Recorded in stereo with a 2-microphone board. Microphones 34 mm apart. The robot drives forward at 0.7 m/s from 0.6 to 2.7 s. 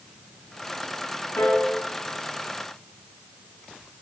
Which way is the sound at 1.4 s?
70° left (ahead or behind).